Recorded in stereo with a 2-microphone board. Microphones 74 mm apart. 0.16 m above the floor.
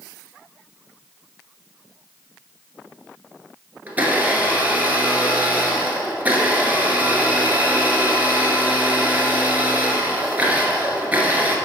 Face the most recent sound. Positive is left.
turn(degrees=-20)  # may be behind; listen again after turning